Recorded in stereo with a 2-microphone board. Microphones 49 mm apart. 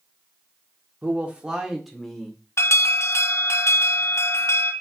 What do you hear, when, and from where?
1.0 s a man speaking: 30° right (ahead or behind), 1.2 m; by 2.4 s 10° left (ahead or behind), 1.6 m
2.6 s an alarm: 65° left (ahead or behind), 0.7 m